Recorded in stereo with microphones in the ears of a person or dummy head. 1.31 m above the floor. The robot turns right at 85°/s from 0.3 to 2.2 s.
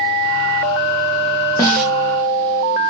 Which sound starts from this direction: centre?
A snare drum, at 1.6 s.